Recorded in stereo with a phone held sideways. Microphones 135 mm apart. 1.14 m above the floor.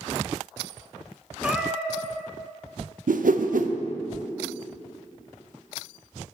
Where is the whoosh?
80° right, 0.6 m.